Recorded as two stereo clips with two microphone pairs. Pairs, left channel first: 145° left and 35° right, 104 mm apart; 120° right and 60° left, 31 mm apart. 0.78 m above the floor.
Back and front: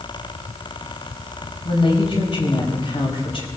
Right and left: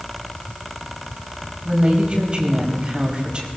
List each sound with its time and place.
1.6 s a woman speaking: 120° left, 4 m